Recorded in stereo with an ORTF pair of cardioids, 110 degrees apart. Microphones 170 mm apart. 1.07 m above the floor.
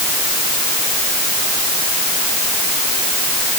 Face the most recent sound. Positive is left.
No sound to turn to.